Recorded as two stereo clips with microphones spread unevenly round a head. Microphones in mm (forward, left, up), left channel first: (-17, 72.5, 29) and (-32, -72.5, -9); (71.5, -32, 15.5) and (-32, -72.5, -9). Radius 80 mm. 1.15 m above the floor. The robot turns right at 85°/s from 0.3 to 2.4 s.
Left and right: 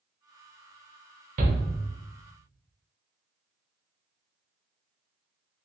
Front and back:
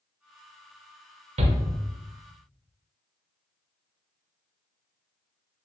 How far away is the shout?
About 0.8 m.